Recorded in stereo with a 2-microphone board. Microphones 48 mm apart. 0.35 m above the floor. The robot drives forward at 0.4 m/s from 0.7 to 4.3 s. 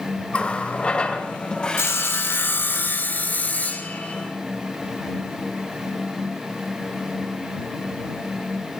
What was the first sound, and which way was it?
A running tap, 20° left (ahead or behind).